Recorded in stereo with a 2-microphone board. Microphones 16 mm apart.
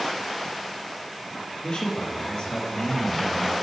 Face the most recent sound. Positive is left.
turn(degrees=40)  # may be behind; listen again after turning